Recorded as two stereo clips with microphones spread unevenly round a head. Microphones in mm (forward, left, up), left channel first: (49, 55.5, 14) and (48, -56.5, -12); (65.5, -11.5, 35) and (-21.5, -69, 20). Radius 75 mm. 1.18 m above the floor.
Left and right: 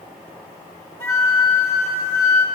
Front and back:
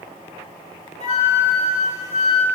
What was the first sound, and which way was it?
A flute, 20° left.